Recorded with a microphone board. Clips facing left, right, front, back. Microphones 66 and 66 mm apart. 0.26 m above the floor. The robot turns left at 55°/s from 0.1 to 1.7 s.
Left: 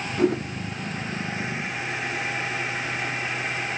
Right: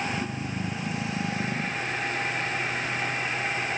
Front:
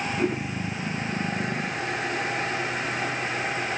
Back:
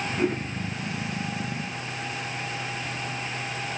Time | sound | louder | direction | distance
0.2 | a toilet flushing | left 8 dB, back 2 dB | 95° left | ?